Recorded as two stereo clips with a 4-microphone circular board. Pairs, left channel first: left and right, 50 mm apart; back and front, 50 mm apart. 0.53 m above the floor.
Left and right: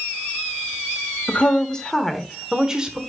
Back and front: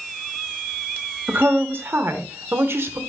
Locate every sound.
1.3 s a woman speaking: 30° left, 1.4 m; by 3.0 s 20° right, 1.5 m